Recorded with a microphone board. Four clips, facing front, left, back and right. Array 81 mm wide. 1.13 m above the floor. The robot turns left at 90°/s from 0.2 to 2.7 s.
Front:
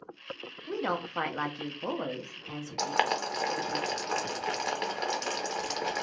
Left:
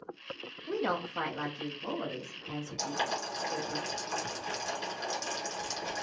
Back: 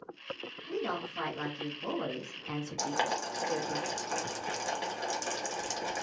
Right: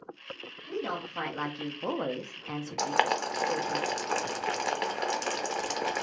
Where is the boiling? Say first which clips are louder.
Right 8 dB, front 4 dB; 65° right, 0.7 m.